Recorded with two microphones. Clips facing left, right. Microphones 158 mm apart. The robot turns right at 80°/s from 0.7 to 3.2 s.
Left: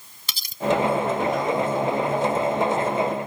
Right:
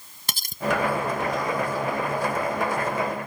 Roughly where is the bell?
I don't hear a bell.